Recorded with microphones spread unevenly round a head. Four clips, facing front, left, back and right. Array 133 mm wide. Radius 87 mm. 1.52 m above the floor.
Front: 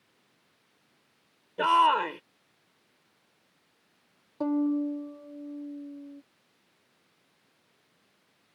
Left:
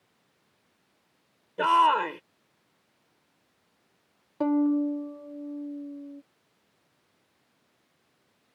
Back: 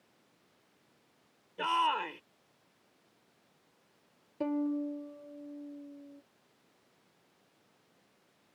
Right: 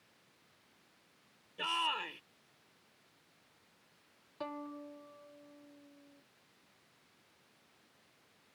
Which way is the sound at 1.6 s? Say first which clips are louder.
Left 17 dB, front 8 dB; 35° left.